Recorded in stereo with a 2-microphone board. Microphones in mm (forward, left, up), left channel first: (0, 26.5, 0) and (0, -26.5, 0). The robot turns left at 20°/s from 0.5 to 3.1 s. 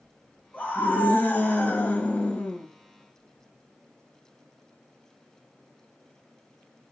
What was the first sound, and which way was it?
A scream, 110° left.